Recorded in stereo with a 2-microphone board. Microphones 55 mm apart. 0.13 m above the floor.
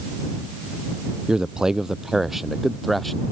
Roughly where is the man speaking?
Centre.